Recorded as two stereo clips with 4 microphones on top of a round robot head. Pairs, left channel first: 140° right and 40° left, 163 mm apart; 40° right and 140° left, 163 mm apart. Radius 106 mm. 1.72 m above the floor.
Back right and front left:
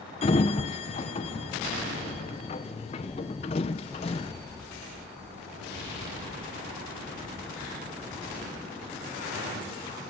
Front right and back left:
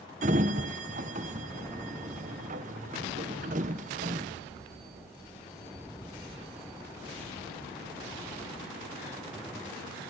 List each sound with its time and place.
0.2 s a sliding door: 175° left, 0.8 m